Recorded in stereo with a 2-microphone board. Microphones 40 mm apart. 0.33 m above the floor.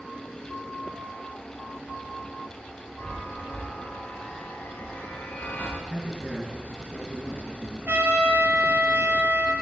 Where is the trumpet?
70° right (ahead or behind), 3.5 m.